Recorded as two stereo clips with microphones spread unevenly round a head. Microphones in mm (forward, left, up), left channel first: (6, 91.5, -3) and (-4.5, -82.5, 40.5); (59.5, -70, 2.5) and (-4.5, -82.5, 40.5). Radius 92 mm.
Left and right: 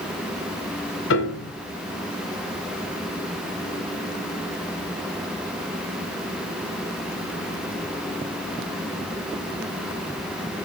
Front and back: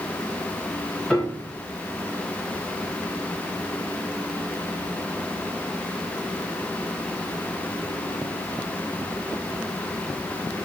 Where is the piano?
95° left, 1.8 m.